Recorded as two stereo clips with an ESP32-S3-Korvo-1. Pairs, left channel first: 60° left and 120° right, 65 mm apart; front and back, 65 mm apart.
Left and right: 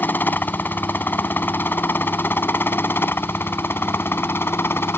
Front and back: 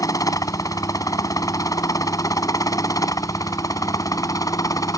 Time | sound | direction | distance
0.0 | a helicopter | 5° left | ?